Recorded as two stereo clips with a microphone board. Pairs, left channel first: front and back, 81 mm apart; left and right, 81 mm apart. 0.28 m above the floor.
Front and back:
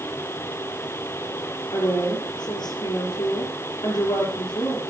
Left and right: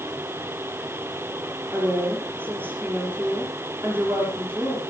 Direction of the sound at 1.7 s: 25° right.